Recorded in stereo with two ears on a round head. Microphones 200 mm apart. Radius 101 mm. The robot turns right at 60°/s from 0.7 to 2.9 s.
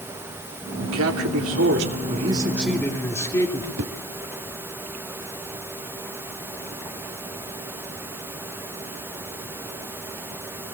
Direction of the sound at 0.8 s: 115° right.